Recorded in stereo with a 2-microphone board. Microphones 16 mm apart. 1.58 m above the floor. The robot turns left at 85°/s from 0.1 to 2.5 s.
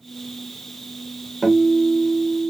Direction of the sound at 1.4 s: 145° left.